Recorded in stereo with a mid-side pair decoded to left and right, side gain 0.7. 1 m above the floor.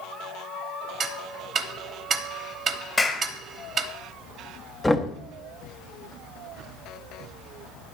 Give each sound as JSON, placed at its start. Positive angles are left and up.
{"t": 1.0, "sound": "ticking", "azimuth_deg": -35, "distance_m": 1.0}
{"t": 3.0, "sound": "a clap", "azimuth_deg": 15, "distance_m": 1.6}
{"t": 4.8, "sound": "knocking", "azimuth_deg": 5, "distance_m": 0.8}